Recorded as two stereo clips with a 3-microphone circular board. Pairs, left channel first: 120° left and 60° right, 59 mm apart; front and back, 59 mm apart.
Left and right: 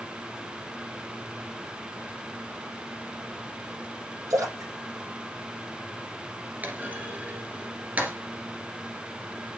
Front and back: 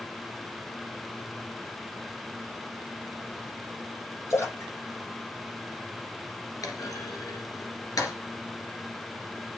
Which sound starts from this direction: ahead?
A clunk, at 6.6 s.